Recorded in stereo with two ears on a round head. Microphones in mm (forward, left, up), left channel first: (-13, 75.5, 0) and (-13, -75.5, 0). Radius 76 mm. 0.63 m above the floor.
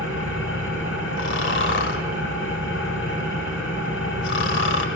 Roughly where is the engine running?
Left.